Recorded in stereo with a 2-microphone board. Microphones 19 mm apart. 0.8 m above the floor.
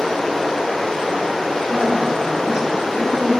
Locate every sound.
0.0 s running water: 65° left (ahead or behind), 2 m
1.7 s a woman speaking: 40° right (ahead or behind), 2 m